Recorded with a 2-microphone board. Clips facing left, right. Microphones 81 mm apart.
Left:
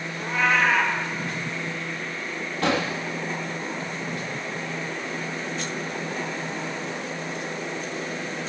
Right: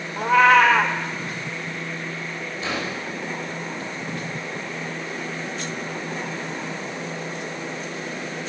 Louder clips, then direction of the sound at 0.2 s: Right 8 dB; 85° right.